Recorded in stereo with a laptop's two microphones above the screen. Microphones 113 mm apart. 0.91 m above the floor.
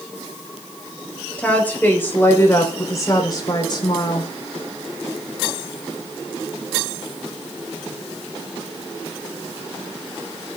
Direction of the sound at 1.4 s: 10° left (ahead or behind).